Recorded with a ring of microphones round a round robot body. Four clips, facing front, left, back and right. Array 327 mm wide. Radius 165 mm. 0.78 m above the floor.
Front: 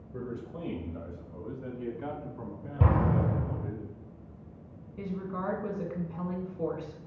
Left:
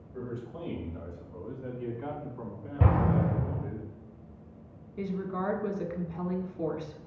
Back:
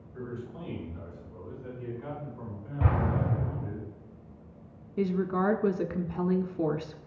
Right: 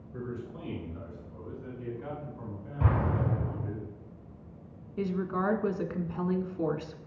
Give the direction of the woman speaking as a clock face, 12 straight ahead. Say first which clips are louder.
Right 3 dB, back 8 dB; 5 o'clock.